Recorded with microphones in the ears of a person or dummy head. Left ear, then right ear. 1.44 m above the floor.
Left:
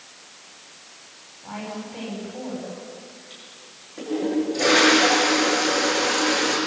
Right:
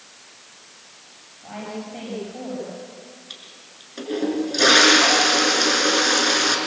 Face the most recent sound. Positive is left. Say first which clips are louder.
# right 2 dB
turn(degrees=-80)